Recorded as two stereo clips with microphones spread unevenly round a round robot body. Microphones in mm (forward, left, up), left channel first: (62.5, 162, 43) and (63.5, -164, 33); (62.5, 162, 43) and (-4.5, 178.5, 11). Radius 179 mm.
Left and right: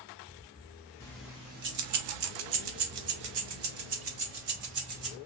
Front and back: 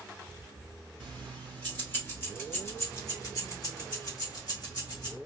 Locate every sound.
1.0 s keys jangling: 170° left, 0.6 m; by 5.2 s 70° right, 2 m